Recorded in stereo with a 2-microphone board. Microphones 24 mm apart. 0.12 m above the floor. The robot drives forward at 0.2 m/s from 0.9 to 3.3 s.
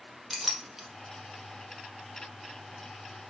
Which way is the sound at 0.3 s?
10° right (ahead or behind).